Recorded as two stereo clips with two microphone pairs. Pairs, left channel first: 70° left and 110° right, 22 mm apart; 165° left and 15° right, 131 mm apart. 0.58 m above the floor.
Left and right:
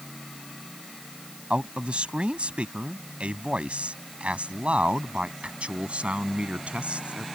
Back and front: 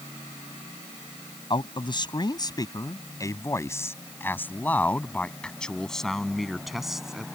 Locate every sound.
1.5 s a man speaking: 145° right; by 7.2 s 100° right